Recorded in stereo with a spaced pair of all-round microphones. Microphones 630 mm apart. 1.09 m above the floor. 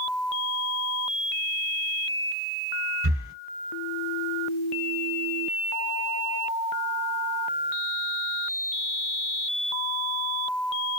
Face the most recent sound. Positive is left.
turn(degrees=-20)  # may be behind; listen again after turning